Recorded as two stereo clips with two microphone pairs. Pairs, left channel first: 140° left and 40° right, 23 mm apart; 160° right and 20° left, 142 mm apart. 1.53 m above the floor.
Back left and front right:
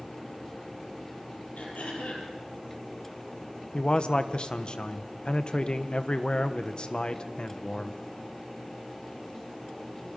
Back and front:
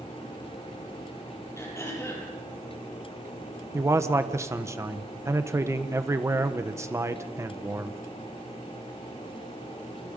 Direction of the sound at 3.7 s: 90° left.